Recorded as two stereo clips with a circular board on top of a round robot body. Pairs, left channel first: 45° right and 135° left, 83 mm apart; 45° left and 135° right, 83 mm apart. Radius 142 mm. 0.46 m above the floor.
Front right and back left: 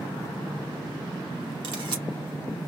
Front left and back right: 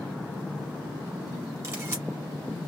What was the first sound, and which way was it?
A camera shutter, 165° left.